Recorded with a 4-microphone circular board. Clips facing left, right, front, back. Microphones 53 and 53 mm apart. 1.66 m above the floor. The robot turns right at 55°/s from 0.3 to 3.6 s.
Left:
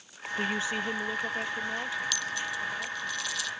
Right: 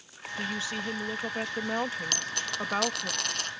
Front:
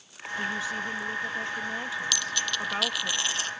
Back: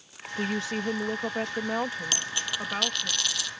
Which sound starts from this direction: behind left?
A woman speaking, at 0.4 s.